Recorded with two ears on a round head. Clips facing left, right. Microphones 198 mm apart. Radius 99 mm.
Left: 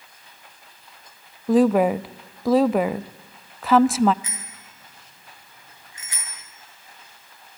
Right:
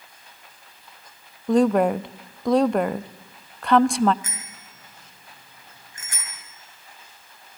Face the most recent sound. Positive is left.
turn(degrees=-45)  # may be behind; listen again after turning